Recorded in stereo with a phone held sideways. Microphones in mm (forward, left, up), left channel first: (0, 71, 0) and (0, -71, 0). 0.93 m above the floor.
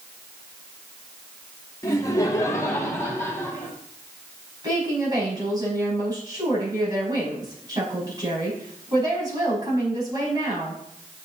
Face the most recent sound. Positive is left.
turn(degrees=-30)  # may be behind; listen again after turning